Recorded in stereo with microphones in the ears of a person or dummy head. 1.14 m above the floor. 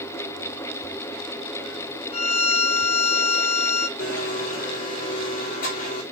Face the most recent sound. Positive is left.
turn(degrees=45)  # may be behind; listen again after turning